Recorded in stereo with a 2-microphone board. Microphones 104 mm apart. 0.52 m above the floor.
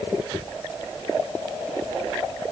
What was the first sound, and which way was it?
Only background noise.